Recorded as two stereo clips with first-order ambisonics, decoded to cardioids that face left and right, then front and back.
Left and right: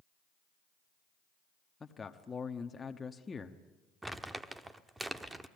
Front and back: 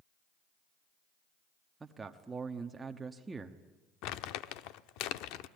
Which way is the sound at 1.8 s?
130° left.